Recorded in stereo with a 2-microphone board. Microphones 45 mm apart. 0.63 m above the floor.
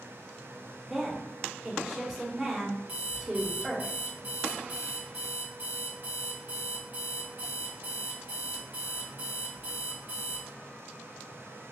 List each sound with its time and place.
0.9 s a woman speaking: 10° right (ahead or behind), 2 m
2.9 s an alarm clock: 30° right (ahead or behind), 1.7 m